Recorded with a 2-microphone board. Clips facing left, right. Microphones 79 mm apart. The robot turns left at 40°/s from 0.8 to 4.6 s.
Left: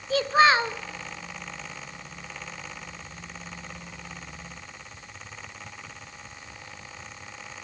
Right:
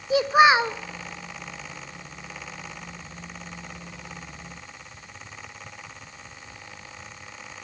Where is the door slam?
No door slam in this recording.